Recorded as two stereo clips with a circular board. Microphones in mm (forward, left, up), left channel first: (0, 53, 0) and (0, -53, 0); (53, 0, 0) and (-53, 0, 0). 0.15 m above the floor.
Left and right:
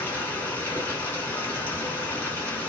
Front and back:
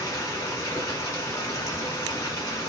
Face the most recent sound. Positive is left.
turn(degrees=30)